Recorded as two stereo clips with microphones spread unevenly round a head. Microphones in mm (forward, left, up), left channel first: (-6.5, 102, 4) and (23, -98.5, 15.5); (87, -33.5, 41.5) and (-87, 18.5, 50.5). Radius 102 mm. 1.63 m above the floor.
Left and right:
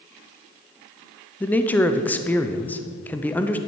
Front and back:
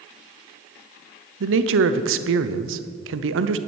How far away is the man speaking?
About 0.7 m.